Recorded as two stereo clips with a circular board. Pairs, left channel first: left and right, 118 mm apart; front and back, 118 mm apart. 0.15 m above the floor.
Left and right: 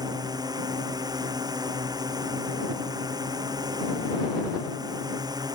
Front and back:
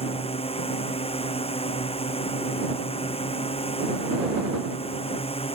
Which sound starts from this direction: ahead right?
A drone, at 0.0 s.